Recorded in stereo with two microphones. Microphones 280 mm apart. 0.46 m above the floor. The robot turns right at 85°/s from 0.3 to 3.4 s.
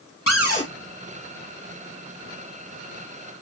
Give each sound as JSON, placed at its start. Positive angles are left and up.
{"t": 0.3, "sound": "a cupboard door", "azimuth_deg": 130, "distance_m": 1.2}